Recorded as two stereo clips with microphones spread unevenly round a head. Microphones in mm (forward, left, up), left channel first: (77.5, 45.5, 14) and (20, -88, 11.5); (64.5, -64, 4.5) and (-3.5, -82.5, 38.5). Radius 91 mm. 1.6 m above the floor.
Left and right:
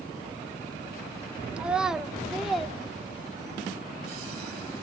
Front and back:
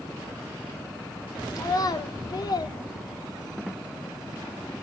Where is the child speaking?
35° right, 1.3 m; by 3.7 s 20° right, 2.5 m.